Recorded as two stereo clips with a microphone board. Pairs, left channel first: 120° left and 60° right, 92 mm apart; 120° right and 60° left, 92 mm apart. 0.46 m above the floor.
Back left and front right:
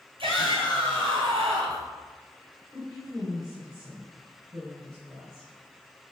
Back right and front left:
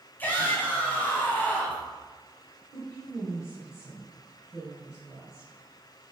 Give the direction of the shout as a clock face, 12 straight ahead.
2 o'clock.